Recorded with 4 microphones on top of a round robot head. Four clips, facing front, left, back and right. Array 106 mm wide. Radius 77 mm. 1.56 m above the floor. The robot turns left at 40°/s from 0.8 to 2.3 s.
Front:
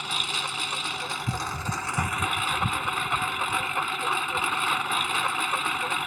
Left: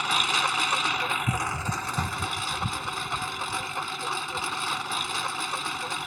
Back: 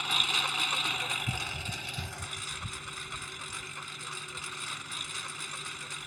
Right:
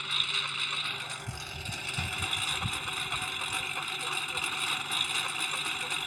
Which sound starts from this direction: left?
A lawn mower, at 0.0 s.